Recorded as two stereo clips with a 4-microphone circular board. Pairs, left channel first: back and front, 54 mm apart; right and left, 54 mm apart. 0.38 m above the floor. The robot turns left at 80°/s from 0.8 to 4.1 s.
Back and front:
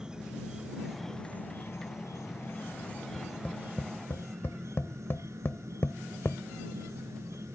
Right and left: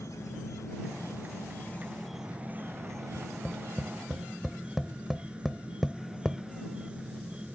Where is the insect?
75° right; by 7.5 s 20° left.